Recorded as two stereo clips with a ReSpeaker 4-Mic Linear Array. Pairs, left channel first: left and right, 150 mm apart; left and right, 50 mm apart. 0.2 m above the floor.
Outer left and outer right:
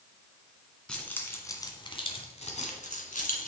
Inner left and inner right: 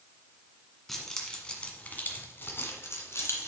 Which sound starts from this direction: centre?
Keys jangling, at 0.9 s.